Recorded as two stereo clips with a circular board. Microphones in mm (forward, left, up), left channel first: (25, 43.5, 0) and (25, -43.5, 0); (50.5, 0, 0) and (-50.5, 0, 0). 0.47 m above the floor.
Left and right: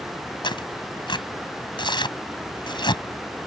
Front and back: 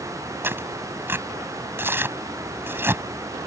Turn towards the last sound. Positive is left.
turn(degrees=115)